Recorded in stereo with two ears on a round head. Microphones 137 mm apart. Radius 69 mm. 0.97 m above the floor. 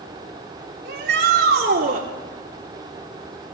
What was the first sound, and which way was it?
A shout, 75° right (ahead or behind).